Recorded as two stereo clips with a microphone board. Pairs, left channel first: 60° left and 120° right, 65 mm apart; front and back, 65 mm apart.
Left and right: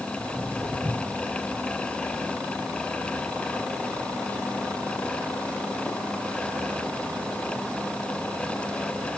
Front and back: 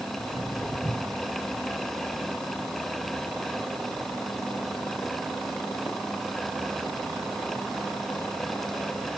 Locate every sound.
0.2 s footsteps: 90° right, 7.5 m; by 8.4 s 25° left, 5.5 m